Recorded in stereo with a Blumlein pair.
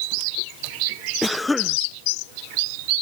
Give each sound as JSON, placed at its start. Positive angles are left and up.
{"t": 1.2, "sound": "a cough", "azimuth_deg": 5}